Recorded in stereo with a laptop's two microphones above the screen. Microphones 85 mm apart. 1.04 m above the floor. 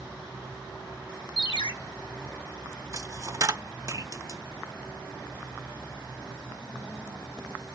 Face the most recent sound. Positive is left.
turn(degrees=-40)  # may be behind; listen again after turning